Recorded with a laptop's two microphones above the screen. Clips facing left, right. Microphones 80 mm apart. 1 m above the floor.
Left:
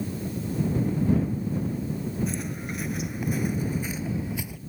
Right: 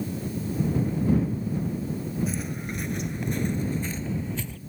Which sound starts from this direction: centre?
Footsteps, at 2.3 s.